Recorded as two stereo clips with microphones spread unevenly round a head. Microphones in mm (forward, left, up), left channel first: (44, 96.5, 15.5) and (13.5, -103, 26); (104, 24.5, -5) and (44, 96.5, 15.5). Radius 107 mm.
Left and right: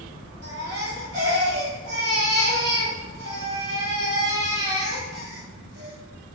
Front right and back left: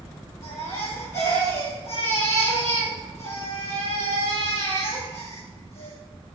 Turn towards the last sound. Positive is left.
turn(degrees=-85)